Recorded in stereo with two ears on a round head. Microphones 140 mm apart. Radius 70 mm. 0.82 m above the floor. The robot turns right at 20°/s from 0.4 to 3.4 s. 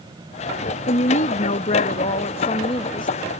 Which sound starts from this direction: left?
A woman speaking, at 0.9 s.